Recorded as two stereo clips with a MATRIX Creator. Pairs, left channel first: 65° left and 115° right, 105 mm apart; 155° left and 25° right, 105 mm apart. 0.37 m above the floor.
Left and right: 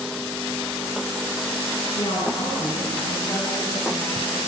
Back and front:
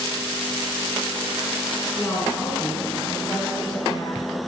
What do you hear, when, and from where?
1.9 s a woman speaking: 85° left, 5 m; by 4.4 s 130° left, 2 m